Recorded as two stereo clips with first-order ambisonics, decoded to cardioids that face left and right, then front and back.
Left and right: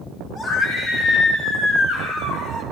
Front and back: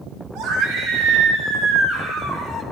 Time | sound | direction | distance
0.3 | a scream | 150° left | 2.0 m